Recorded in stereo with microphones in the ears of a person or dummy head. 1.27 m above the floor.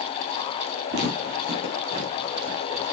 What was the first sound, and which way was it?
Footsteps, 60° right (ahead or behind).